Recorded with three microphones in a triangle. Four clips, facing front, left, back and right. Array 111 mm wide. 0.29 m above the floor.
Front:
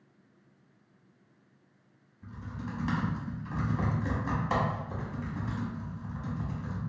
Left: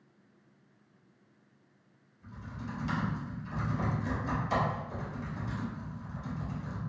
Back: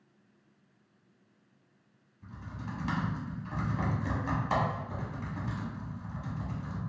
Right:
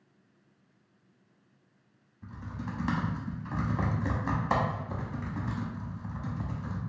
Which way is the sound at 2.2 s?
90° right.